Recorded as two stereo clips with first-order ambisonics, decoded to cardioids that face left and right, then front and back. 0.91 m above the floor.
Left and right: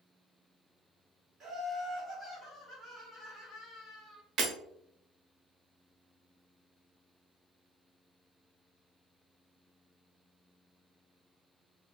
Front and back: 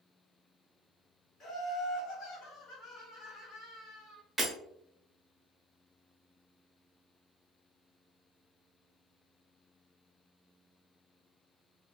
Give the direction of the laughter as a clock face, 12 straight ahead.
1 o'clock.